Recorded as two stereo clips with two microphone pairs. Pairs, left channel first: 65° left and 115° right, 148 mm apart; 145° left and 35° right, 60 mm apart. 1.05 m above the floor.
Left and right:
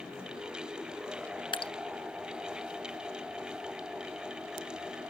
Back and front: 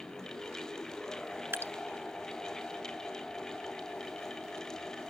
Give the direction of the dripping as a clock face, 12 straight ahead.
12 o'clock.